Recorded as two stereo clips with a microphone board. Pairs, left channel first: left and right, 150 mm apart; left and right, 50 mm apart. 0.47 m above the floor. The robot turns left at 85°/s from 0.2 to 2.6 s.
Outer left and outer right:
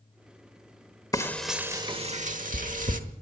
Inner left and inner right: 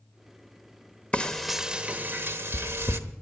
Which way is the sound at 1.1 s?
25° left (ahead or behind).